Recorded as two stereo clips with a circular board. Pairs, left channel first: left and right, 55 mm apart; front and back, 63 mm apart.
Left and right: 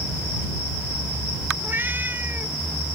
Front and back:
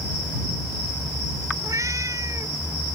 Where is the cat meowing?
145° right.